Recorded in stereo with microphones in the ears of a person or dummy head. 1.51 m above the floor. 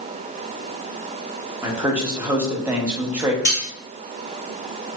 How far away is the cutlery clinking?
About 1.1 m.